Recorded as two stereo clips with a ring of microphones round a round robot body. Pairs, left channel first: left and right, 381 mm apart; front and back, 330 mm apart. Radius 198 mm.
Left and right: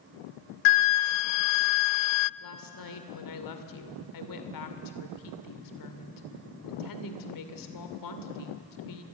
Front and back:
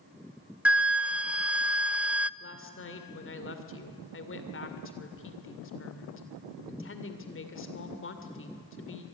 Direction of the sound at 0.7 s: 95° left.